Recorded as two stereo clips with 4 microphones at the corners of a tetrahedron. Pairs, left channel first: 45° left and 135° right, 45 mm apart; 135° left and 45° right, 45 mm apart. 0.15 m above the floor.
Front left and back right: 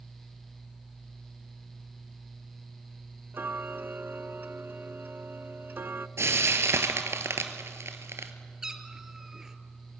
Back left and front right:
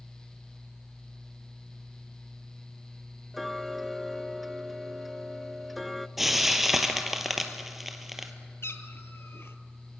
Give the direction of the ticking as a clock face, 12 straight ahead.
5 o'clock.